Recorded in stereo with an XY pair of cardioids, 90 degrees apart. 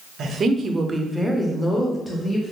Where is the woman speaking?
65° right, 0.7 m; by 2.5 s 25° left, 1.3 m.